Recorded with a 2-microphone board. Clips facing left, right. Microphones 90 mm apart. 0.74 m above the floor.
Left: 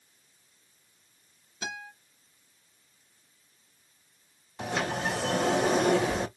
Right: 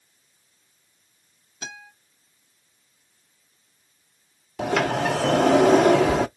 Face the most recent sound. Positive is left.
turn(degrees=-80)